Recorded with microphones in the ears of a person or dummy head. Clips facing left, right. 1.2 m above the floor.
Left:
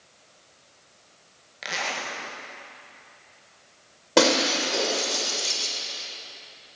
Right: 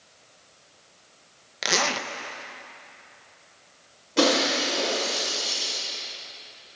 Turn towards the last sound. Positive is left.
turn(degrees=80)